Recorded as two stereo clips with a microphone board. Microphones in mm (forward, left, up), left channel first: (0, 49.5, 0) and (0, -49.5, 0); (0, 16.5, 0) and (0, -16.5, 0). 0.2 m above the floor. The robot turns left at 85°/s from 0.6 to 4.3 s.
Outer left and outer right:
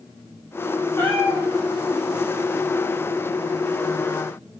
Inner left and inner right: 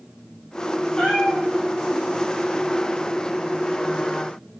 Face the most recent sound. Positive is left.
turn(degrees=105)